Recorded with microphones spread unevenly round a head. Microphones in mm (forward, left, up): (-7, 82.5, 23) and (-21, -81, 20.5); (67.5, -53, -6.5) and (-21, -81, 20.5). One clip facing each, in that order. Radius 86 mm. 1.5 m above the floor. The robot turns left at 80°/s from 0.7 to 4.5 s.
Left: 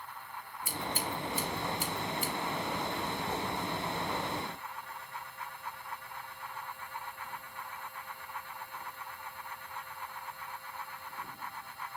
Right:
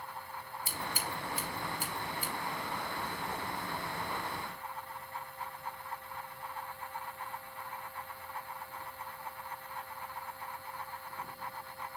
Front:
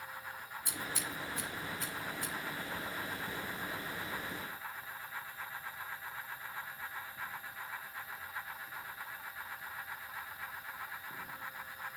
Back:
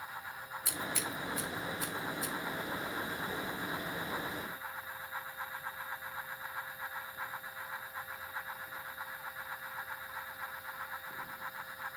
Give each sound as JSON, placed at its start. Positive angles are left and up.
{"t": 0.7, "sound": "scissors", "azimuth_deg": -160, "distance_m": 4.5}